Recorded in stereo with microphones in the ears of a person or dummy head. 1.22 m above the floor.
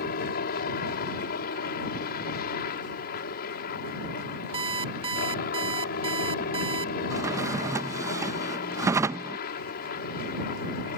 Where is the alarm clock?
25° right (ahead or behind).